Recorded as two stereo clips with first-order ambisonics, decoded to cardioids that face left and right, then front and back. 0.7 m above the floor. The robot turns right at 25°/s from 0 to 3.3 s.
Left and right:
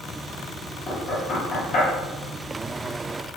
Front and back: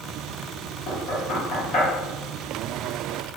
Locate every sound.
0.9 s knocking: 25° left, 0.9 m; by 1.9 s 50° left, 0.9 m